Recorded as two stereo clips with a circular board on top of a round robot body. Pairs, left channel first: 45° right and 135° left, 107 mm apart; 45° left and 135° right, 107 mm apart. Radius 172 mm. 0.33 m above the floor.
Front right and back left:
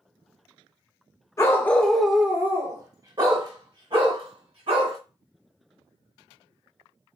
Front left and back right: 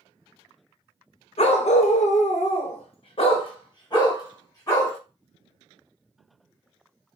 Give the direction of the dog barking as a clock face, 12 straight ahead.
11 o'clock.